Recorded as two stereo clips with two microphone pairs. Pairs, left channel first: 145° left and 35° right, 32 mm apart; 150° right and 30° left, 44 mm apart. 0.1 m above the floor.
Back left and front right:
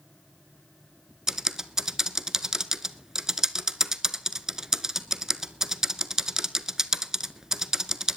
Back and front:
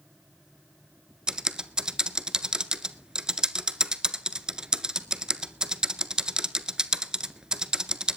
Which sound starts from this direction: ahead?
Typing on a keyboard, at 1.3 s.